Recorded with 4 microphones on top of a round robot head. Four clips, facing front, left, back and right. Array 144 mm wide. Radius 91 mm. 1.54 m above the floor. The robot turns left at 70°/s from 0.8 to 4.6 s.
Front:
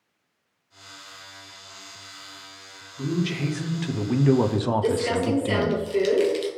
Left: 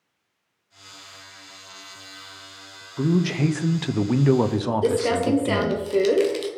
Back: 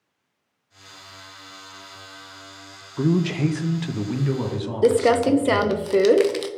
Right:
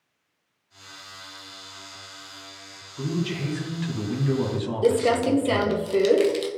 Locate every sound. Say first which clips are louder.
3.0 s a man speaking: left 7 dB, back 6 dB; 155° left, 0.5 m; by 5.8 s 40° left, 0.5 m
4.8 s crumpling: right 3 dB, back 6 dB; straight behind, 0.6 m